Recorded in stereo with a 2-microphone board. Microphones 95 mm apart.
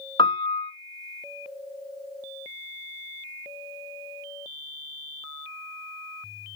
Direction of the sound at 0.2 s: 65° left (ahead or behind).